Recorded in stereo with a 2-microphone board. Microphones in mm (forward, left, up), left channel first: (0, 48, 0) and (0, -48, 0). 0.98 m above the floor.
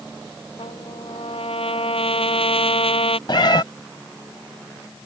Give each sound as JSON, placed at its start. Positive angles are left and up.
{"t": 0.6, "sound": "a trumpet", "side_deg": 80}
{"t": 3.3, "sound": "a cat meowing", "side_deg": 55}